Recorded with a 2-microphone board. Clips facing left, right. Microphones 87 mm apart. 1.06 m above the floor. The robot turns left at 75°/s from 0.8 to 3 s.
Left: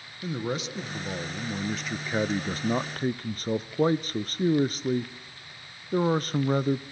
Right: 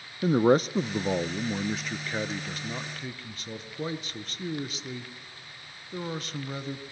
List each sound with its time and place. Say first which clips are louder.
0.2 s a man speaking: right 10 dB; 105° right, 0.6 m; by 6.8 s 90° left, 0.6 m